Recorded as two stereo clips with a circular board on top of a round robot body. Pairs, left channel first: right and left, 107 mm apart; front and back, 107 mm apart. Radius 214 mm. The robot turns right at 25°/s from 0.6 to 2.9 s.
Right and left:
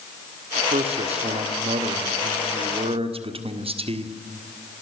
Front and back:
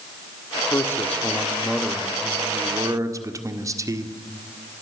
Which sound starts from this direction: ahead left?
A man speaking, at 0.7 s.